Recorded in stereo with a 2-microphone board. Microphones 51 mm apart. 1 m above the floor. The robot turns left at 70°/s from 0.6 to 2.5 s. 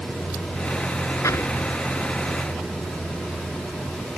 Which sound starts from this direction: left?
An explosion, at 1.2 s.